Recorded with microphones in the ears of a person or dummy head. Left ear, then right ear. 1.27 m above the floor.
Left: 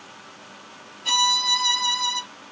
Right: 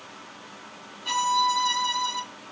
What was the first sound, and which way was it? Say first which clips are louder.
A violin: left 4 dB; 20° left (ahead or behind).